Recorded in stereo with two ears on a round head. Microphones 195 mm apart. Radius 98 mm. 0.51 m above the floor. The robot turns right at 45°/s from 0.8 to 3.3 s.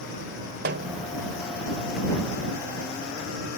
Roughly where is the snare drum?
Right.